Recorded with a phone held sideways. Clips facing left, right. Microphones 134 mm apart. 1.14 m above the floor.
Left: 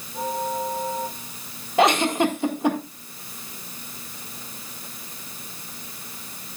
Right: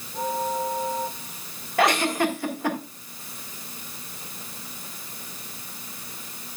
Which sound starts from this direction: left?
A giggle, at 1.8 s.